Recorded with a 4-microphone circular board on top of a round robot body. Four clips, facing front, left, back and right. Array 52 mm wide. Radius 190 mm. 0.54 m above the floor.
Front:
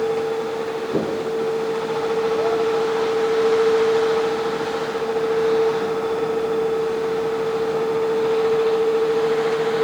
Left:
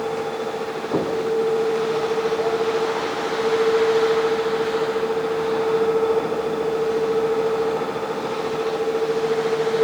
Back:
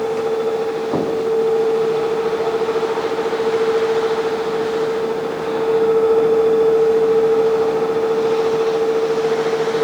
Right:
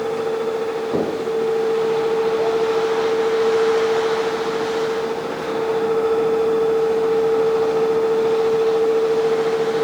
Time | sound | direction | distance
0.9 | knocking | straight behind | 5 m